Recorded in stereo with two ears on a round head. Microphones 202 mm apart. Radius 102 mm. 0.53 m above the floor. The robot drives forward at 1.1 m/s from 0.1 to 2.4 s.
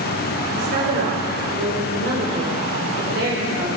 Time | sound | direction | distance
0.5 | a woman speaking | 45° right (ahead or behind) | 2.0 m